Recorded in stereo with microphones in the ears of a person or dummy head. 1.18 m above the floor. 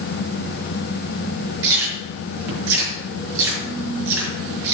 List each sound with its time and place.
1.6 s chewing: 75° right (ahead or behind), 6 m